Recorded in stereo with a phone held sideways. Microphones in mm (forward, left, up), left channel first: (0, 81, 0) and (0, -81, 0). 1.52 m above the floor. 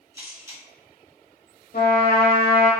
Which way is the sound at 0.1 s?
20° right (ahead or behind).